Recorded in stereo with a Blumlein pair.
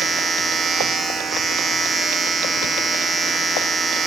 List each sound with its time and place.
0.0 s a machine running: 15° right, 1.3 m